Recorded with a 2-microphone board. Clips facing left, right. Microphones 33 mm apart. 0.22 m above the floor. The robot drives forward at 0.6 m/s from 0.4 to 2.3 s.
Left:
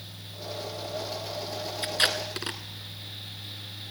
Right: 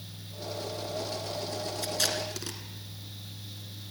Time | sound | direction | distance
1.8 | tape being pulled | 40° left (ahead or behind) | 1.8 m